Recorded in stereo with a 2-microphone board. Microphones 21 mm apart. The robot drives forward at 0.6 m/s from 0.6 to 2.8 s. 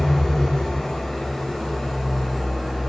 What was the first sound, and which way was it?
An engine running, 35° left (ahead or behind).